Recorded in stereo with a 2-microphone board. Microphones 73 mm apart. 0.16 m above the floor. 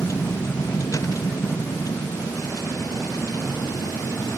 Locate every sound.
0.0 s a vehicle: 40° left (ahead or behind); by 4.4 s 60° left (ahead or behind)